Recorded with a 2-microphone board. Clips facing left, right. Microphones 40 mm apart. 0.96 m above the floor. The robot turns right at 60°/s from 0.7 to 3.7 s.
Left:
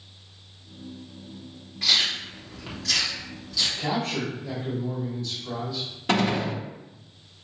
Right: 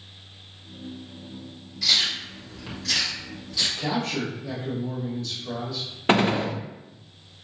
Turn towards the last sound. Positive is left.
turn(degrees=-40)  # may be behind; listen again after turning